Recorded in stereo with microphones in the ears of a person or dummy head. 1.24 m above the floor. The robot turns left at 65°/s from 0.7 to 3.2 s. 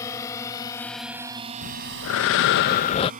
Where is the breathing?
130° left; by 3.1 s 30° left.